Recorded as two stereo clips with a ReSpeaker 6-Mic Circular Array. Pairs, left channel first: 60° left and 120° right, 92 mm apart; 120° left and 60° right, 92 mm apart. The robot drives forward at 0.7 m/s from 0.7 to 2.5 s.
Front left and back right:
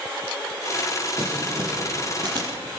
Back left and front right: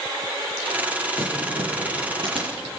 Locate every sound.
1.2 s crumpling: 75° right, 7 m; by 2.5 s 85° right, 7 m